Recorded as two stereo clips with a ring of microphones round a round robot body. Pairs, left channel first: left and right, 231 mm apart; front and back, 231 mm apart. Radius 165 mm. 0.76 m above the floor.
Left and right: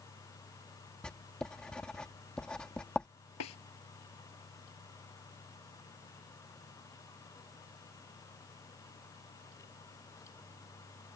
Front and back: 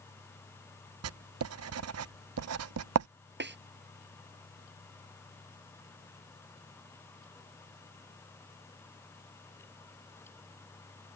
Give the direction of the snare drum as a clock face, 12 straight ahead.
7 o'clock.